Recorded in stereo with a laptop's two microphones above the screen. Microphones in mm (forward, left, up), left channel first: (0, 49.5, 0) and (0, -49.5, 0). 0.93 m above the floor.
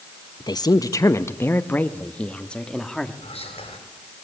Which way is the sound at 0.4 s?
45° left (ahead or behind).